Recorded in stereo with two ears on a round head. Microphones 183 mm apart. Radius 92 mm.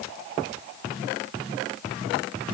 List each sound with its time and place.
Only background noise.